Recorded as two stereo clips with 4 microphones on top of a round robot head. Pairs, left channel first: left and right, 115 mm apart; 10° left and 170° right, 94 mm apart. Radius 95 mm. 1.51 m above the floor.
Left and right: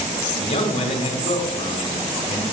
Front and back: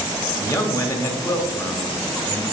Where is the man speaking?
65° left, 2 m.